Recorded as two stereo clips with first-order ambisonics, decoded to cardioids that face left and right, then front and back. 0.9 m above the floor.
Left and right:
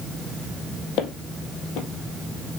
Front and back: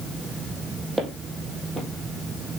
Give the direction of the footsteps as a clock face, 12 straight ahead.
9 o'clock.